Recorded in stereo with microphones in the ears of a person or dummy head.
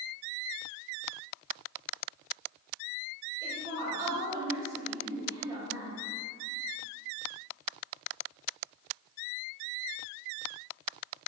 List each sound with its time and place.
3.4 s a woman speaking: 15° right (ahead or behind), 1.8 m